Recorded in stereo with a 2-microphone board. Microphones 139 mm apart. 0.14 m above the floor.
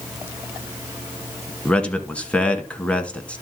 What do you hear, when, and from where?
1.6 s a man speaking: 10° left (ahead or behind), 1.2 m